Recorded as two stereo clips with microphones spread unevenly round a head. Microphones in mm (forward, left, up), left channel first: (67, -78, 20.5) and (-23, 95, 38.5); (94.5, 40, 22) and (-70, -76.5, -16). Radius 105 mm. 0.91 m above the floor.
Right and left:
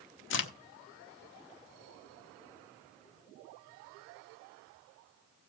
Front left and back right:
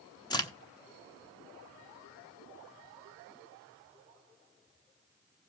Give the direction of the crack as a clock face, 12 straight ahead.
1 o'clock.